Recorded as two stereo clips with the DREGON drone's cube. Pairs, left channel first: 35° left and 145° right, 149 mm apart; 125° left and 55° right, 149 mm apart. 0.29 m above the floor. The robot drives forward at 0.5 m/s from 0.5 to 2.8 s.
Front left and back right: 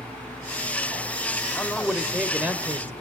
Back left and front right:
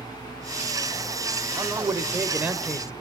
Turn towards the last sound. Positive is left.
turn(degrees=-125)